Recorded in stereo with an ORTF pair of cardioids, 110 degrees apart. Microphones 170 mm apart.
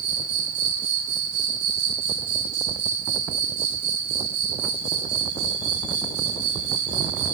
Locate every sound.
0.0 s an insect: 70° right, 1.9 m